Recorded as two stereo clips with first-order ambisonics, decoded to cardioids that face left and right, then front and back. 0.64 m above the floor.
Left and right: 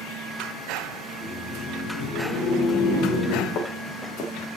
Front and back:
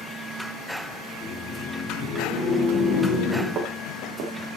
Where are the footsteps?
135° left, 2.5 m; by 4.6 s 150° left, 3 m.